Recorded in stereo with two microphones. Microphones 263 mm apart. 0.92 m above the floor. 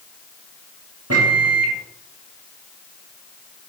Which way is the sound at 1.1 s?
65° right (ahead or behind).